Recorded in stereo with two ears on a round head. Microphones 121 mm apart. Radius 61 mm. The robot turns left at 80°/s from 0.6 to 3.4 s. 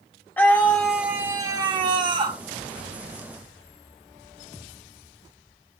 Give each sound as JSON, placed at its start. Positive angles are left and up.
{"t": 0.4, "sound": "a scream", "azimuth_deg": 25, "distance_m": 1.5}